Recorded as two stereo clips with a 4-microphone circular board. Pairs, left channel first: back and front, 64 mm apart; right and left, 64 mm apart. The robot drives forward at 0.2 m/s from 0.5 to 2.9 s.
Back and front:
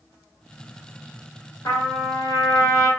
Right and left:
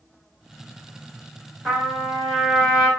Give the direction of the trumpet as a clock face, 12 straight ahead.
6 o'clock.